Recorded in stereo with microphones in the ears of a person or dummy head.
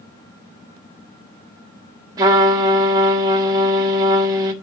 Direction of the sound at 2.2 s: 15° right (ahead or behind).